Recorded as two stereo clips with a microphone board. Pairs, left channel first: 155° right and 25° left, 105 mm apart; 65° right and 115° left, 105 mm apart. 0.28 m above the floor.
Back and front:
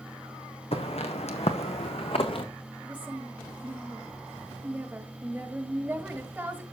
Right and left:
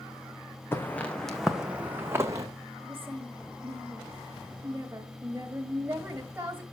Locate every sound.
0.7 s footsteps: 135° right, 1.4 m; by 2.5 s 170° left, 1.4 m
2.8 s a woman speaking: 80° left, 1.2 m